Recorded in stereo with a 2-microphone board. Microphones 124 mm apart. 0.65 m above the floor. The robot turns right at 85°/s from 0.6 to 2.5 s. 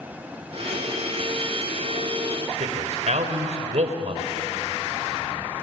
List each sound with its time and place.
2.6 s a man speaking: 65° right (ahead or behind), 2.5 m